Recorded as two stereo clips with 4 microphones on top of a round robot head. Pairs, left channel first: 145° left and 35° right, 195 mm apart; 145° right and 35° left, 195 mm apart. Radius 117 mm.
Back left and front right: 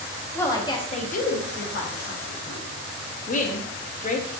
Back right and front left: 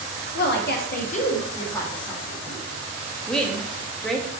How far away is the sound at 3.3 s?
About 0.7 m.